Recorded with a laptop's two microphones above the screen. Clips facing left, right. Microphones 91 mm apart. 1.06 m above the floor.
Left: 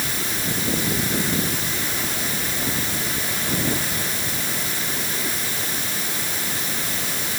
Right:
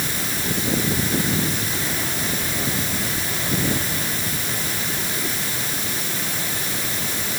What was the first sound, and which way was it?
Only background noise.